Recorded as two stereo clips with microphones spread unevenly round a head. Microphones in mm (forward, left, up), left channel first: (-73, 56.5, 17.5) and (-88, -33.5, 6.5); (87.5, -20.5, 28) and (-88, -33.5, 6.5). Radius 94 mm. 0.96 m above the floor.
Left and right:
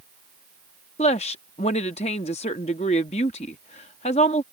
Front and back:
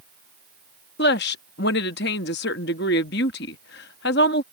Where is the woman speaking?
45° left.